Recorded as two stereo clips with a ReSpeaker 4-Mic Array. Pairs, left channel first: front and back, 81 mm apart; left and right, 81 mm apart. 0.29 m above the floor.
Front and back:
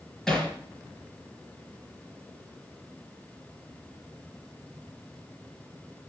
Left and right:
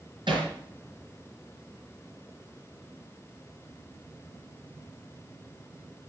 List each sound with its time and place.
0.3 s hammering: 85° right, 5.5 m